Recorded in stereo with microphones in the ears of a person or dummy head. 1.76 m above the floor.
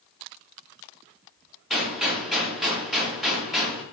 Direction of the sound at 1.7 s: Centre (ahead or behind).